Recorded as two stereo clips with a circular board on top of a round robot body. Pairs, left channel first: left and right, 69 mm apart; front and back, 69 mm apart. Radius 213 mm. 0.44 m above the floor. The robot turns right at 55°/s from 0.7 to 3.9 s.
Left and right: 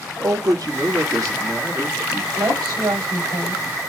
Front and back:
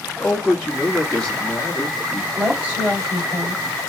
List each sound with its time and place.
0.2 s a man speaking: 95° right, 1.6 m; by 2.3 s 10° right, 1.6 m
2.4 s a woman speaking: 125° right, 3.5 m; by 3.6 s 55° right, 3.5 m